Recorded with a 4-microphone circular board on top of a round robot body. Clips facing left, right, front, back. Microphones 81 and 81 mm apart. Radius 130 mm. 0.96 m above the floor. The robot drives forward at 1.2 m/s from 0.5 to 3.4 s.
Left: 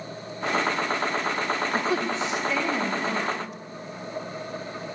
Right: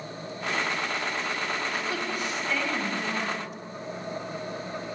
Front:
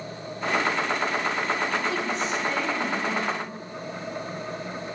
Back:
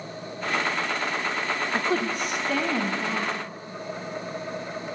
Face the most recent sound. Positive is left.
turn(degrees=170)